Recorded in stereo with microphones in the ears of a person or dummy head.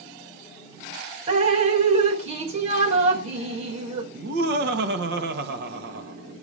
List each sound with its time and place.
1.3 s dripping: 40° right (ahead or behind), 1.6 m
4.1 s laughter: 65° right (ahead or behind), 2 m